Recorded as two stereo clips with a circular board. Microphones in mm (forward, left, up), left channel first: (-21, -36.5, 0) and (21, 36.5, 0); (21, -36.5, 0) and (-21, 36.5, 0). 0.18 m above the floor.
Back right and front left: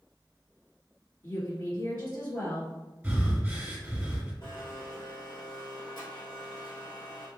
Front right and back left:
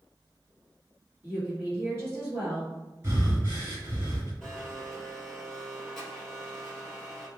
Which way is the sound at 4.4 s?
150° right.